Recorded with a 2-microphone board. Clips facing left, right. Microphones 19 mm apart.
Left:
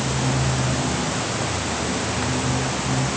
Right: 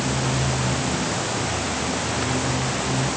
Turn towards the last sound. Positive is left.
No sound to turn to.